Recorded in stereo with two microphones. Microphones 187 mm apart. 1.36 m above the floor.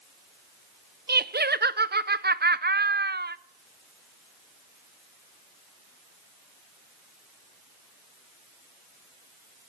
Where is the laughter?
65° right (ahead or behind), 0.6 m.